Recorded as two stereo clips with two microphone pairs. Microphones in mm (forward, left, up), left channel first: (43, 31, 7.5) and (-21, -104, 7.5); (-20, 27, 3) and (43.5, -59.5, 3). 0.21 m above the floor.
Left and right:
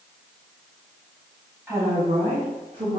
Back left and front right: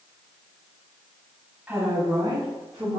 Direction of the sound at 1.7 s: 80° right.